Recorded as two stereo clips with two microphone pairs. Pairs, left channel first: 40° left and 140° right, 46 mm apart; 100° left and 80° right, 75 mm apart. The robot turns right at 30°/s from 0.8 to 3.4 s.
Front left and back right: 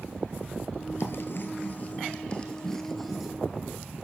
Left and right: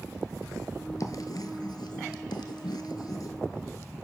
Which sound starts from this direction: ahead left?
Writing, at 1.0 s.